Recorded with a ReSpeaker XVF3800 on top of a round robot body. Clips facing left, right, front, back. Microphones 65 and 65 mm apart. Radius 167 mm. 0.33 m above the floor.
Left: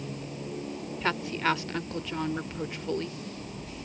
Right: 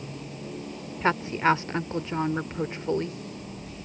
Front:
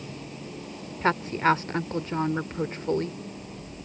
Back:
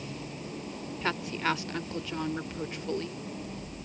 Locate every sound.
1.0 s a woman speaking: 35° right